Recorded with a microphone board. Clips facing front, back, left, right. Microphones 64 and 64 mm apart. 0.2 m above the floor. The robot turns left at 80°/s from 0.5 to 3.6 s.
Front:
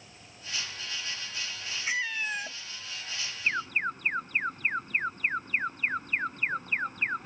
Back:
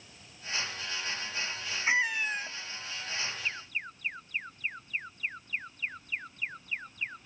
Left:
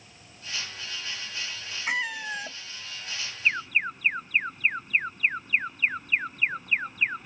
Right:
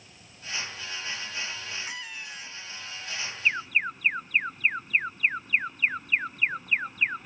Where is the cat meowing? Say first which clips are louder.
Back 3 dB, left 10 dB; 120° left; by 2.6 s 65° left.